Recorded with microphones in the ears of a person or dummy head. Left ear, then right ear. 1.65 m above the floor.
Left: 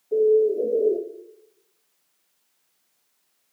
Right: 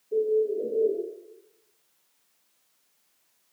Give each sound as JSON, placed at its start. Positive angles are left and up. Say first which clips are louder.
{"t": 0.1, "sound": "a bird", "louder": "left 6 dB", "side_deg": 55, "distance_m": 0.9}